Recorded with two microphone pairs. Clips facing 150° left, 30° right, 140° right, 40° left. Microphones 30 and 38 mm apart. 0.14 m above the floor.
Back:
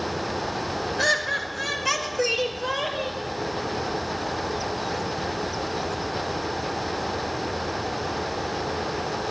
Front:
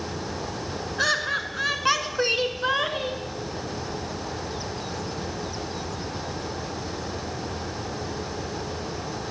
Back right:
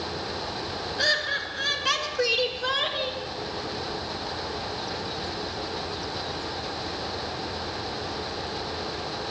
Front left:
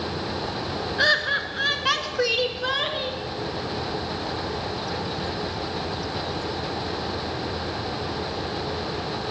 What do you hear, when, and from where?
1.0 s laughter: 35° left, 1.4 m; by 3.2 s 45° right, 1.8 m